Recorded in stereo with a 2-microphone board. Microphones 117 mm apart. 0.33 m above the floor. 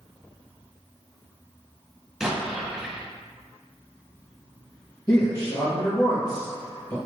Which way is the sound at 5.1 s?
35° left (ahead or behind).